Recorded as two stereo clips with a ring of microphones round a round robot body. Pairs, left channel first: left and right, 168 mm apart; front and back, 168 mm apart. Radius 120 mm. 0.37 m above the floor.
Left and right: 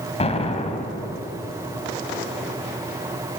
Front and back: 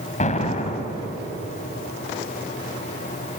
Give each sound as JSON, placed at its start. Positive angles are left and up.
{"t": 0.2, "sound": "an explosion", "azimuth_deg": 40, "distance_m": 2.5}